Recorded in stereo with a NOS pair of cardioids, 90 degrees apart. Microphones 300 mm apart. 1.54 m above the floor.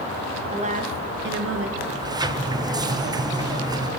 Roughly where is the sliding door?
Ahead.